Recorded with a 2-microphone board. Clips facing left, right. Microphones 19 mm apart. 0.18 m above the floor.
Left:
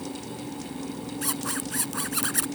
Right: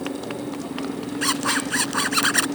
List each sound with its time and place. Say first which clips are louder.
0.0 s a motorcycle: right 7 dB; 90° right
1.2 s a zipper: right 10 dB; 40° right (ahead or behind)